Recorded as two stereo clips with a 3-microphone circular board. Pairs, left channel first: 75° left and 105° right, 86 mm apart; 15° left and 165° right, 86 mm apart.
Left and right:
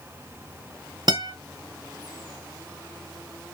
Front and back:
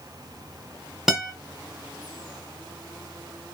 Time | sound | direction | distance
1.1 | a guitar | 85° right | 0.8 m